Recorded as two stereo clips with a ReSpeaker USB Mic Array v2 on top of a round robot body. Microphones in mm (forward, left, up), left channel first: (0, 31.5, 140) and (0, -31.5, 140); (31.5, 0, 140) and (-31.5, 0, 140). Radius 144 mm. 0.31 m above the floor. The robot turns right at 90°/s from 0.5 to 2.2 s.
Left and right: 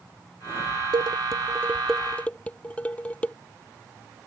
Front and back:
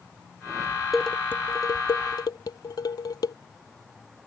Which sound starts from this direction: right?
Dishes clattering, at 0.9 s.